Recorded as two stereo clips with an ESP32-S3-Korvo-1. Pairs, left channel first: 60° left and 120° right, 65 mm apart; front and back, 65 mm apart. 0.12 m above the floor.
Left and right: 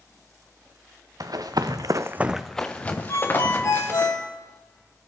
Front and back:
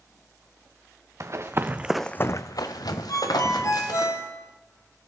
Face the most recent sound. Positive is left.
turn(degrees=30)